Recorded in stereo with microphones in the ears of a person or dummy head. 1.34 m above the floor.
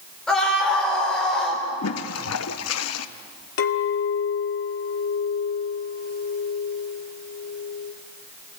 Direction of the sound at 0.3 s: Centre (ahead or behind).